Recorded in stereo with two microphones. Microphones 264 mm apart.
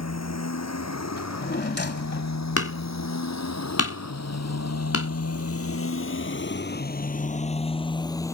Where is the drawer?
40° left (ahead or behind).